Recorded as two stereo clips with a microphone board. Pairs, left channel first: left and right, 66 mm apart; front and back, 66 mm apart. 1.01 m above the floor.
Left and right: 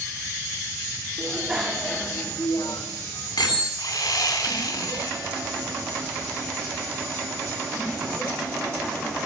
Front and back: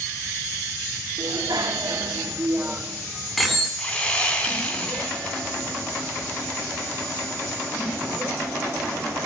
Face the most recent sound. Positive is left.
turn(degrees=70)